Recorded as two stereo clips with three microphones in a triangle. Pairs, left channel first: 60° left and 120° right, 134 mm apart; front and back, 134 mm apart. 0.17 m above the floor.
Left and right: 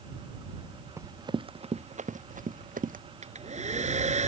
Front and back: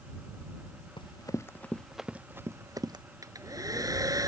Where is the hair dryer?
120° right.